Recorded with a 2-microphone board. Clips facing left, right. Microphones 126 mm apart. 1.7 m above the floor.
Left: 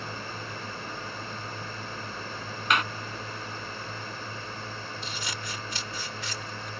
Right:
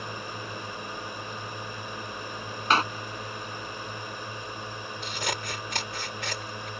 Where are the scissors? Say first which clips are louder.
Right 4 dB; 65° right (ahead or behind).